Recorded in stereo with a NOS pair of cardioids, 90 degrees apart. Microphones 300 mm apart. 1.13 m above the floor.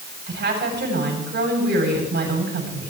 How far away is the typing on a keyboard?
I don't hear typing on a keyboard.